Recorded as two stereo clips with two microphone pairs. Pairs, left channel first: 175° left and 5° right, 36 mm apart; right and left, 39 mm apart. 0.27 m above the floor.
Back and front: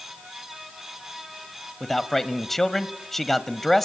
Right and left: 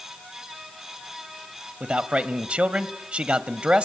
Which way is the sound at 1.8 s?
105° left.